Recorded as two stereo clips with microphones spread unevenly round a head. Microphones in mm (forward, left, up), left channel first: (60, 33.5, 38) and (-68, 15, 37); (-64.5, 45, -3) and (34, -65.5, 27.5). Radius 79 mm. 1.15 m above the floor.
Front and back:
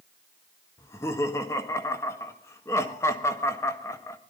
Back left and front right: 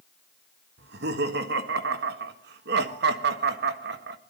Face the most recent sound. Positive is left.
turn(degrees=-65)